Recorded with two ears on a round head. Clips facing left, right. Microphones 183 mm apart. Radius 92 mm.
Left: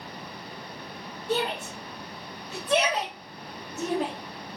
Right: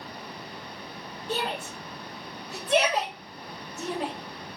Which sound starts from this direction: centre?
A shout, at 1.3 s.